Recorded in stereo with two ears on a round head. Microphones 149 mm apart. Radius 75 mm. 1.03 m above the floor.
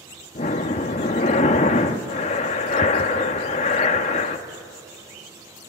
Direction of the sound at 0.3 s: 40° left (ahead or behind).